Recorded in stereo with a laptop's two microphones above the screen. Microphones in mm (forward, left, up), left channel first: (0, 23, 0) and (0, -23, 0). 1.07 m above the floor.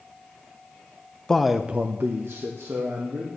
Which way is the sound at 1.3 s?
10° left (ahead or behind).